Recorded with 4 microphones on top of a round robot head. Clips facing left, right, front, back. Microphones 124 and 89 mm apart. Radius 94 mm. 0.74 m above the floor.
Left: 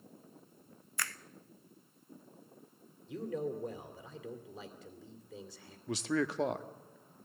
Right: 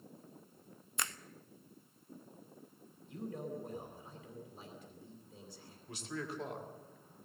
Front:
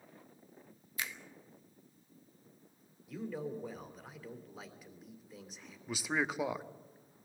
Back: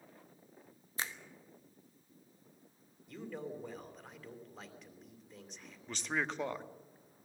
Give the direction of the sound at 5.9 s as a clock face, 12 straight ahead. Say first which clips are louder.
Left 10 dB, front 2 dB; 9 o'clock.